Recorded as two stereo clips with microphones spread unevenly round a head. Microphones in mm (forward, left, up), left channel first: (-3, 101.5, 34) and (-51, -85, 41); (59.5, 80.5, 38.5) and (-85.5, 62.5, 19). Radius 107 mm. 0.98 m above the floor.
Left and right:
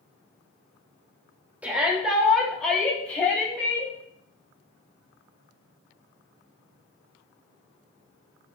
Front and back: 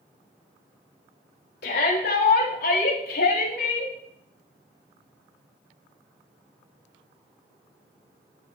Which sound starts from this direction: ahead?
A shout, at 1.6 s.